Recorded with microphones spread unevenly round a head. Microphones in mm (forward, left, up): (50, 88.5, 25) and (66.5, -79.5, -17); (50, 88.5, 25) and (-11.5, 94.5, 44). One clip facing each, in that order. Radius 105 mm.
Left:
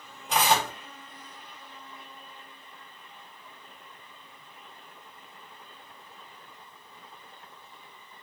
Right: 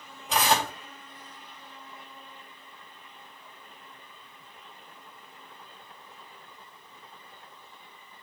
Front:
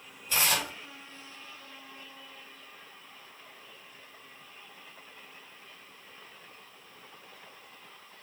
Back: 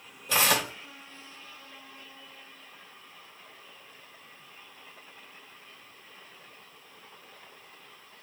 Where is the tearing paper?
170° right, 2.5 m.